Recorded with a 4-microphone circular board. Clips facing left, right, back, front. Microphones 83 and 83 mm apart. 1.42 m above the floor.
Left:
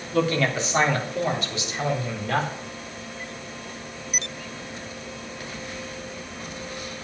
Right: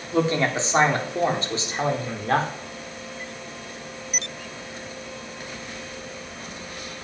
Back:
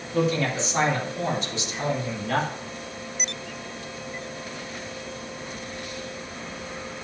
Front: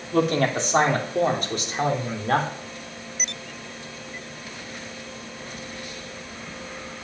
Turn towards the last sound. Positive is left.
turn(degrees=-40)